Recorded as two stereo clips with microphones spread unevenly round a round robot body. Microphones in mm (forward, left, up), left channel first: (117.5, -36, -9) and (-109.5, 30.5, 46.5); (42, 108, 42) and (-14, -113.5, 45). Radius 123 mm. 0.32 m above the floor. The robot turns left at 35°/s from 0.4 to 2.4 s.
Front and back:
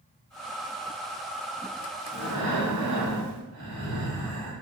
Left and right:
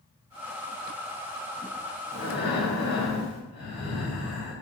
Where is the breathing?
135° left, 2 m; by 4.5 s 125° left, 2 m.